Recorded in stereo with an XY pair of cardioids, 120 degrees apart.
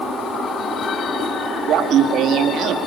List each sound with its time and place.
1.7 s laughter: 65° right, 2 m